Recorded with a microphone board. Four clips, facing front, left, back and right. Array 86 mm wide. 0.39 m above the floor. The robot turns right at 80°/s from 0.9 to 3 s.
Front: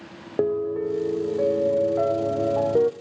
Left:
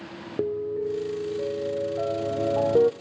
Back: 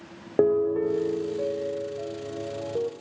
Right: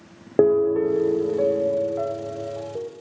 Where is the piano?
105° right, 0.5 m; by 2.9 s 60° left, 0.5 m.